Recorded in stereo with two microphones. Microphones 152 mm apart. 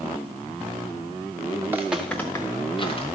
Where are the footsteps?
20° right (ahead or behind), 1.1 m; by 3.0 s 40° left (ahead or behind), 1.9 m.